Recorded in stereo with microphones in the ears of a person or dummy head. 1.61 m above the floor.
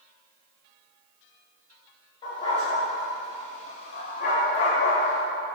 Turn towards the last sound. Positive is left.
turn(degrees=55)  # may be behind; listen again after turning